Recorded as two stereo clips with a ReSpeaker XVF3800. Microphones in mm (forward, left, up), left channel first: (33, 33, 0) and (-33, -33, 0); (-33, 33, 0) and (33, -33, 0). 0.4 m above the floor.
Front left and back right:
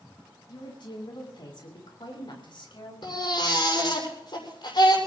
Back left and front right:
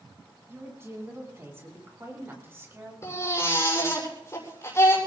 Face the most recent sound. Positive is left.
turn(degrees=75)